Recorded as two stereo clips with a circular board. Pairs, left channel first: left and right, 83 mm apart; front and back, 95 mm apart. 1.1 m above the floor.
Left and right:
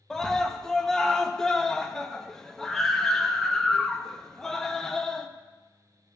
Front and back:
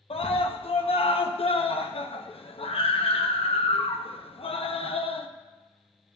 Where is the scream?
5° left, 0.9 m.